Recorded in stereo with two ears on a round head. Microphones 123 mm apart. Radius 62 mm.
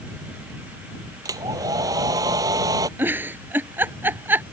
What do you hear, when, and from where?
1.2 s a hair dryer: 25° right (ahead or behind)
3.0 s a giggle: 15° right (ahead or behind)